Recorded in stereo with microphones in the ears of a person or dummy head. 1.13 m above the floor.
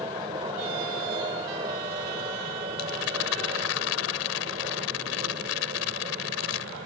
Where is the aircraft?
20° right (ahead or behind); by 6.9 s 40° right (ahead or behind).